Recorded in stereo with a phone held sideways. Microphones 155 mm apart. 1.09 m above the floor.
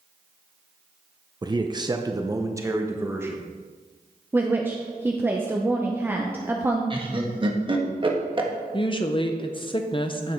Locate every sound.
1.4 s a man speaking: 25° right (ahead or behind), 0.6 m; by 3.5 s 15° right (ahead or behind), 1.5 m
4.3 s a woman speaking: 15° right (ahead or behind), 0.7 m
6.9 s laughter: 35° right (ahead or behind), 1.6 m
8.7 s a woman speaking: 35° left (ahead or behind), 0.6 m